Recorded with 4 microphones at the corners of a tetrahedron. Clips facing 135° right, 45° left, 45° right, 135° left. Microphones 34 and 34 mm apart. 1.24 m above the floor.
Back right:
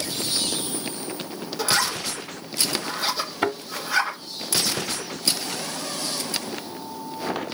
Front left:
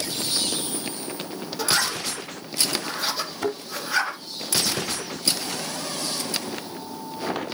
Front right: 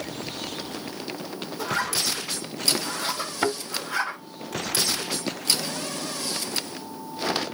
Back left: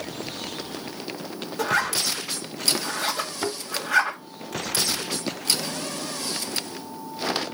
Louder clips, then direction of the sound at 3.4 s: Back right 3 dB, front right 6 dB; 105° right.